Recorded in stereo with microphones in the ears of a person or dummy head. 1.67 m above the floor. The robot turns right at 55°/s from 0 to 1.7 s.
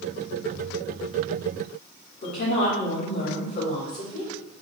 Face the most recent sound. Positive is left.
turn(degrees=50)  # may be behind; listen again after turning